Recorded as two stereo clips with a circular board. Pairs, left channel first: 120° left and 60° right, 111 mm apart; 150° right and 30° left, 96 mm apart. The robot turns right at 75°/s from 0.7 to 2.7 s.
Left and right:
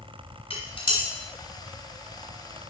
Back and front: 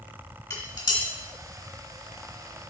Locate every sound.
0.5 s dishes clattering: 150° left, 2.5 m; by 1.0 s 175° left, 2.5 m